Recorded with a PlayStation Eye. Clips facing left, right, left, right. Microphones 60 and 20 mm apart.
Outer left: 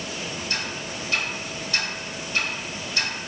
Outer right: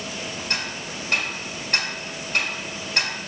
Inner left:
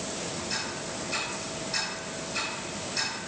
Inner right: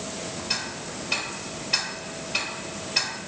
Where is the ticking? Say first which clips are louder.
Outer right 2 dB, inner right 3 dB; 65° right (ahead or behind), 1.5 m.